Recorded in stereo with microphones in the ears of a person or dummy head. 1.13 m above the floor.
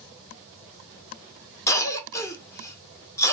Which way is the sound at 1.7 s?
20° left (ahead or behind).